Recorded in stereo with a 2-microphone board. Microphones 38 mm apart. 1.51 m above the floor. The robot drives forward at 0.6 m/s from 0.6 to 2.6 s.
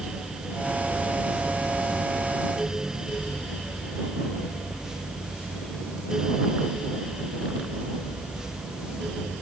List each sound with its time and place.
Only background noise.